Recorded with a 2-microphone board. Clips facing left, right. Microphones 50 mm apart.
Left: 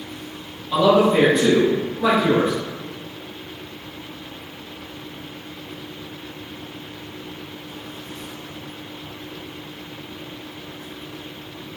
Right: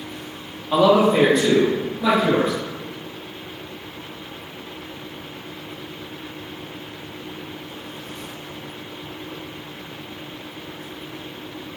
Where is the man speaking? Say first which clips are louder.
Even; 35° right (ahead or behind), 0.9 m; by 2.5 s 30° left (ahead or behind), 2.5 m.